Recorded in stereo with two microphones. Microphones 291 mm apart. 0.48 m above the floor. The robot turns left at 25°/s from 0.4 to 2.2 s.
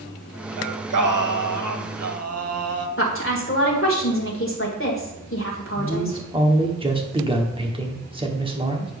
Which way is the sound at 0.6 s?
85° right.